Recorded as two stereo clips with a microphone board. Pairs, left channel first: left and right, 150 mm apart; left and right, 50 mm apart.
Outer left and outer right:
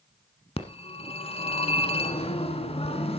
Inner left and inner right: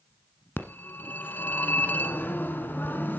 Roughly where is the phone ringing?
Left.